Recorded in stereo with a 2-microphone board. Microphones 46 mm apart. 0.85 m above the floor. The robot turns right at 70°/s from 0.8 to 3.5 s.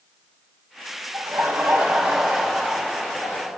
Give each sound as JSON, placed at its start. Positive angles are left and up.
{"t": 1.1, "sound": "laughter", "azimuth_deg": -85, "distance_m": 5.0}